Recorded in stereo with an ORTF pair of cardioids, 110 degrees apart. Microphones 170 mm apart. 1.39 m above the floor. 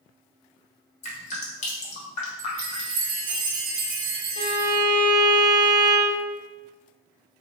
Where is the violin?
30° left, 0.8 m.